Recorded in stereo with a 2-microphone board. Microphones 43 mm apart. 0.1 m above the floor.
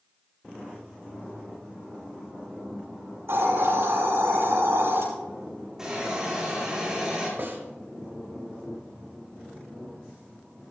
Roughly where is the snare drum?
Right.